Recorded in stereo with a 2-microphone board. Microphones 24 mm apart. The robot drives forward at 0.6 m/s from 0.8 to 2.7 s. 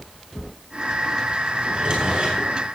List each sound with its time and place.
1.6 s a drawer: 45° right (ahead or behind), 9 m; by 2.5 s 40° right (ahead or behind), 9.5 m